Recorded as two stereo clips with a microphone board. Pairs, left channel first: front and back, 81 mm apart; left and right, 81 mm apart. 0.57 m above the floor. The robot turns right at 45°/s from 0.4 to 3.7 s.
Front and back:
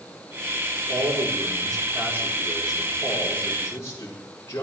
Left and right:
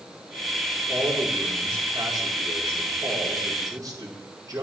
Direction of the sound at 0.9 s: Straight behind.